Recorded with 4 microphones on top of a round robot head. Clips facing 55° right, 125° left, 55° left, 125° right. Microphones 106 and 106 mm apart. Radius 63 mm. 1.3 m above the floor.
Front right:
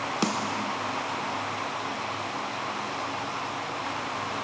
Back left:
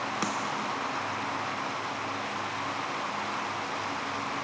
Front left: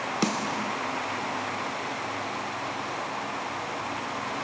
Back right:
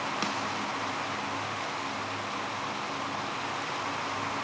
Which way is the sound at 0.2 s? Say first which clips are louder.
Front right 5 dB, front left 4 dB; 10° left.